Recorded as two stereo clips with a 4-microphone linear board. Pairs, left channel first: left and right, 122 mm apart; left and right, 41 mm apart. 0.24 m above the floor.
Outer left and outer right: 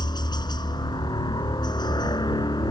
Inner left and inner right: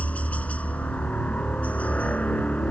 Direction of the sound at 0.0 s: 35° left (ahead or behind).